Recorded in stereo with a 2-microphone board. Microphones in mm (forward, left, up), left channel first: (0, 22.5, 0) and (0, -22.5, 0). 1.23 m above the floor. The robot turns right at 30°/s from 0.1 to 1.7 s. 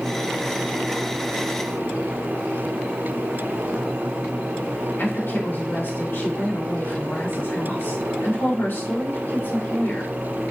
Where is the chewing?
I don't hear chewing.